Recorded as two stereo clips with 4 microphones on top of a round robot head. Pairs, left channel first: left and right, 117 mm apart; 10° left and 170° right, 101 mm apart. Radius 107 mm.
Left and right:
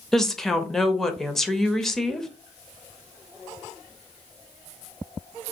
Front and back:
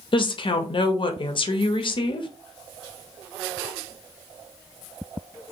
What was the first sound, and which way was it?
A woman speaking, 5° left.